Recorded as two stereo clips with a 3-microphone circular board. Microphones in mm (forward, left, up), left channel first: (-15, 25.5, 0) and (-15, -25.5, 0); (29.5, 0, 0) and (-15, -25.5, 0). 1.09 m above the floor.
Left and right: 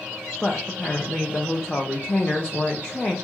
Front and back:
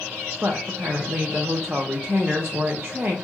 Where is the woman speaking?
160° left, 0.5 m.